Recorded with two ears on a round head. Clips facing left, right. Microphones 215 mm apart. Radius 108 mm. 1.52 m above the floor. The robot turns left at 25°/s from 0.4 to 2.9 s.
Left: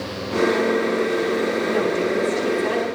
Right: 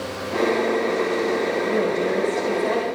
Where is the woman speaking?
90° left, 6.5 m; by 2.9 s 60° left, 6.5 m.